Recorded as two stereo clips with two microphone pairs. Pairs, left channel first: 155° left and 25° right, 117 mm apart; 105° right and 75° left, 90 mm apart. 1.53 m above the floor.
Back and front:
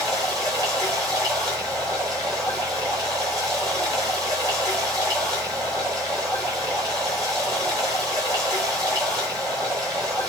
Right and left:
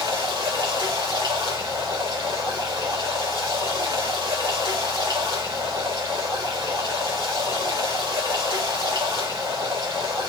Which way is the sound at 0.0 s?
30° left.